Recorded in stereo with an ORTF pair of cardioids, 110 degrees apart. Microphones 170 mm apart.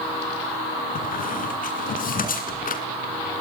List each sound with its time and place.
0.9 s a squeak: 55° left, 3 m